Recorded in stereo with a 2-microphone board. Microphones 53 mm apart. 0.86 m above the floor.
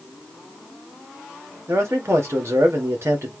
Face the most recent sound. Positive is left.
turn(degrees=-60)  # may be behind; listen again after turning